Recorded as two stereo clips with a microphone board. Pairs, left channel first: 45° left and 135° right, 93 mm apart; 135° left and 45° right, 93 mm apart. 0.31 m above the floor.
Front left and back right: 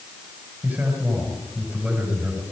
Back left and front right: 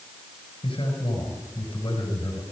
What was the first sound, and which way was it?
A man speaking, 155° left.